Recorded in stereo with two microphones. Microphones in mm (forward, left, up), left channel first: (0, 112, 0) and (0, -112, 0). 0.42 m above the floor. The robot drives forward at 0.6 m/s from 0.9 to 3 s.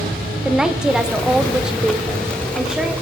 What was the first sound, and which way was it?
A woman speaking, 5° right (ahead or behind).